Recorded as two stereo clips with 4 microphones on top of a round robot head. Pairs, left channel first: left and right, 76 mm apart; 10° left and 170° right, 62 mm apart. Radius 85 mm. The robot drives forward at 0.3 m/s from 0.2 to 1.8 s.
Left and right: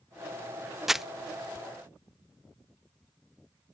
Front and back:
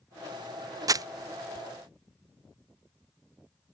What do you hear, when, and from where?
0.9 s crumpling: 175° right